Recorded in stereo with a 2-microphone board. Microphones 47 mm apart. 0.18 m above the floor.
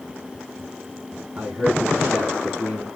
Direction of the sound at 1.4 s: 30° right (ahead or behind).